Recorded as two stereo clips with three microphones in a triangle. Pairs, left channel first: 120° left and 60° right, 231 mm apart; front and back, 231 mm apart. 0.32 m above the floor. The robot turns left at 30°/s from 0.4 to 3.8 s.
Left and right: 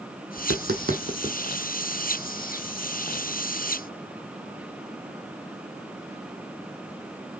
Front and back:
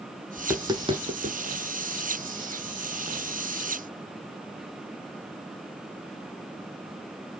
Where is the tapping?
100° right, 0.9 m; by 1.4 s 130° right, 0.9 m.